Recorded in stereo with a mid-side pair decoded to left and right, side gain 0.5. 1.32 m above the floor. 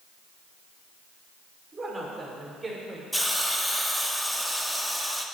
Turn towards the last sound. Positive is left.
turn(degrees=0)